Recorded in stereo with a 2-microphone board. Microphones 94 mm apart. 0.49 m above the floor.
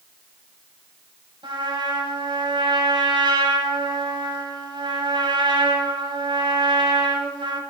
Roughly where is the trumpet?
Right.